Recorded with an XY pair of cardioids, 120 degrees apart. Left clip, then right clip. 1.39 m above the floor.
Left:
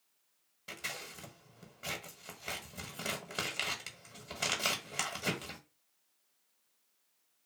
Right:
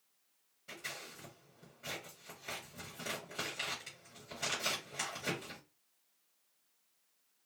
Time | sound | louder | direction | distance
0.7 | scissors | left 4 dB | 65° left | 1.0 m